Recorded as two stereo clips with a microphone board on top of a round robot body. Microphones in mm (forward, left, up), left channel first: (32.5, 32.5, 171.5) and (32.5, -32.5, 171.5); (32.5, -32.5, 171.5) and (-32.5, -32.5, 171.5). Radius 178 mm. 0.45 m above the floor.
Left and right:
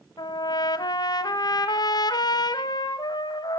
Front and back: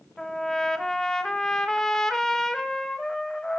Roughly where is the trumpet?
Left.